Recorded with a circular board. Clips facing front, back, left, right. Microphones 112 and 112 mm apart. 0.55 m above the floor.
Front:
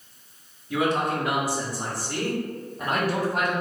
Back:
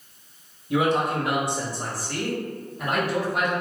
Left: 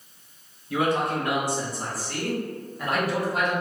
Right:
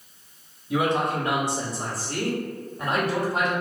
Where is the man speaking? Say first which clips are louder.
Back 2 dB, right 1 dB; 135° right, 1.1 m; by 3.5 s 35° right, 1.9 m.